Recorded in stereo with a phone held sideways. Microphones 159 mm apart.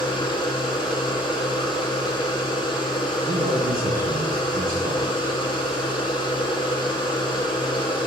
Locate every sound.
0.0 s a machine running: 30° left (ahead or behind), 1.1 m
3.2 s a man speaking: 65° right (ahead or behind), 0.7 m